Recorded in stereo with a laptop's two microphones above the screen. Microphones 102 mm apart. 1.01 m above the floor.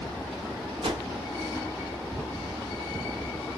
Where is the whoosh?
70° right (ahead or behind), 0.8 m.